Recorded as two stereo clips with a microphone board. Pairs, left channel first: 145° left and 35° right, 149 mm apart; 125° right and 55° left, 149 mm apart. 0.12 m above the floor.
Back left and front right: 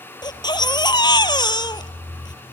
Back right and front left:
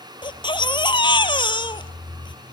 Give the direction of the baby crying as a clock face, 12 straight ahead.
6 o'clock.